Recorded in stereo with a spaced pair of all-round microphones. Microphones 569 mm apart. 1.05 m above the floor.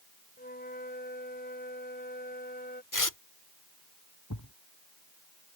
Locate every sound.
0.4 s a flute: 15° left (ahead or behind)
2.9 s tearing paper: 35° left (ahead or behind)
4.3 s a thud: 30° left (ahead or behind)